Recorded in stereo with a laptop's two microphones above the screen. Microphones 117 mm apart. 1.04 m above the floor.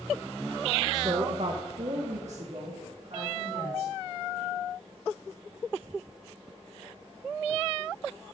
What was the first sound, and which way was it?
A woman speaking, 35° right (ahead or behind).